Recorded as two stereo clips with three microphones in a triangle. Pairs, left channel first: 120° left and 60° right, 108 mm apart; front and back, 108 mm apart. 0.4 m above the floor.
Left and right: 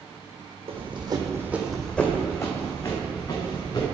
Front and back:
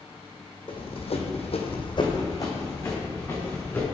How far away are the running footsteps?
About 1.3 m.